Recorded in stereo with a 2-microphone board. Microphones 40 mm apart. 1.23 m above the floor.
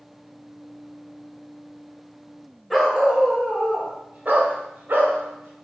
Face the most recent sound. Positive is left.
turn(degrees=-70)  # may be behind; listen again after turning